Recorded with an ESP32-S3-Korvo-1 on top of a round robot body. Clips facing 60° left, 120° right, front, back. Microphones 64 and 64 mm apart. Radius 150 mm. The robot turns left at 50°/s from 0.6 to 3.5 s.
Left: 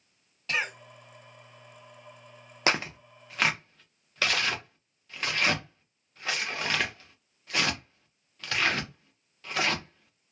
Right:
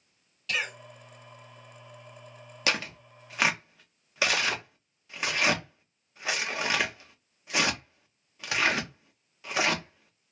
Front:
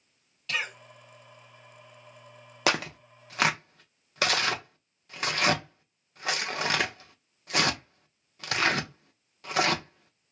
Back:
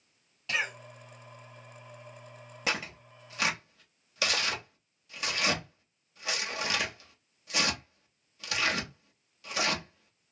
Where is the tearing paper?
Straight ahead, 0.8 m; by 10.3 s 40° right, 0.8 m.